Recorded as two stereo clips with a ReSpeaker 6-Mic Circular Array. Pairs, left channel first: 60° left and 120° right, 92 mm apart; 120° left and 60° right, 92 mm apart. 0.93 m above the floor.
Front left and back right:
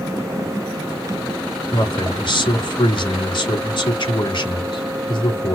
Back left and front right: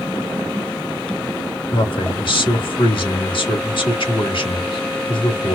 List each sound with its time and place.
1.7 s a man speaking: 95° left, 1.8 m